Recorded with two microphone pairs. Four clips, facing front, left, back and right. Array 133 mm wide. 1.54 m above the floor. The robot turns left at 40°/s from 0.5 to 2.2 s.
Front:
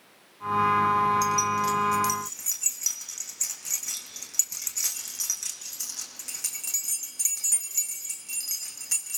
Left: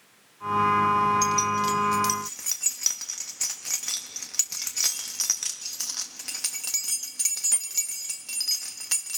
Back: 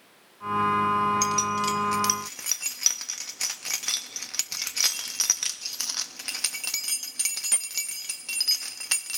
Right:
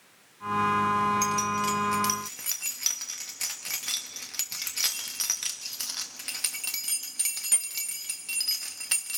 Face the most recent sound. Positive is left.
turn(degrees=170)